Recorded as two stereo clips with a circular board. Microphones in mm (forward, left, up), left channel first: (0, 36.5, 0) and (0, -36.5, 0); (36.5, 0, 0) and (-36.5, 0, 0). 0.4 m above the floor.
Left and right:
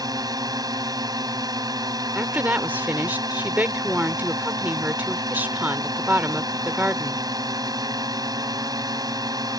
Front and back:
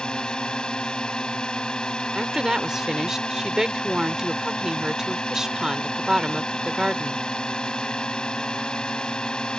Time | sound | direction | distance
0.0 | a drone | 80° right | ?
2.1 | a woman speaking | 110° right | ?